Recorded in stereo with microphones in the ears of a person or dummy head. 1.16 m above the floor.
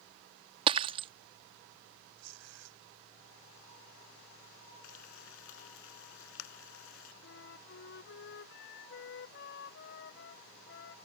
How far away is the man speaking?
I don't hear a man speaking.